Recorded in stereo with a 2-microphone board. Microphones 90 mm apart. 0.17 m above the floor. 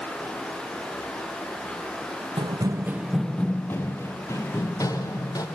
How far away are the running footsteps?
About 0.8 m.